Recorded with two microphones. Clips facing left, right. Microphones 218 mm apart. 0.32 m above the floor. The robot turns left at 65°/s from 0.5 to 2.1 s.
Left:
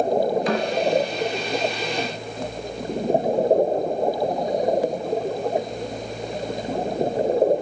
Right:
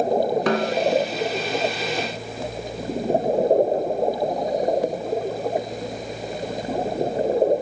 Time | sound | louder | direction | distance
0.5 | a snare drum | right 2 dB | 75° right (ahead or behind) | 2.5 m